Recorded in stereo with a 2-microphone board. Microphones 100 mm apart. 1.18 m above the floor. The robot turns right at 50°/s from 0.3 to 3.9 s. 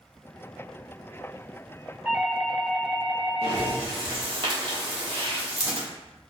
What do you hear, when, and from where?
2.0 s a doorbell: 15° right, 0.8 m; by 3.8 s 75° left, 0.8 m
3.4 s breathing: 70° right (ahead or behind), 1.3 m; by 5.9 s 60° right (ahead or behind), 1.3 m